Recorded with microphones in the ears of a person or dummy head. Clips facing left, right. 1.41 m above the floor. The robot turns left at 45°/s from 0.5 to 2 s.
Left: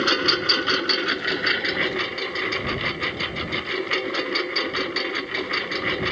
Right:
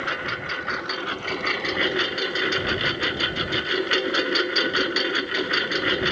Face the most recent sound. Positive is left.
turn(degrees=-10)